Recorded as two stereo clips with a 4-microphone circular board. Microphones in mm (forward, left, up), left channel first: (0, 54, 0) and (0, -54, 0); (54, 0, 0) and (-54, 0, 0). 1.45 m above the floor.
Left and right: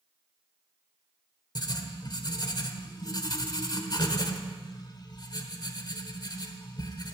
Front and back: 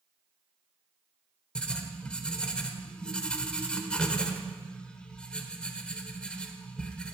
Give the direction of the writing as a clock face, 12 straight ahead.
9 o'clock.